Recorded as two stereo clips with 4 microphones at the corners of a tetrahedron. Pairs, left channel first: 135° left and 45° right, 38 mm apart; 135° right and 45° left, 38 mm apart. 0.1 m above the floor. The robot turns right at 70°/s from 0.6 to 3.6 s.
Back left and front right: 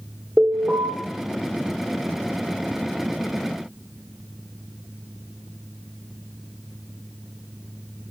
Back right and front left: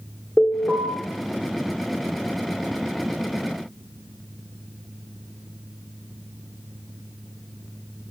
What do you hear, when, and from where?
0.4 s an alarm: 95° right, 2.5 m; by 0.9 s 75° right, 2.5 m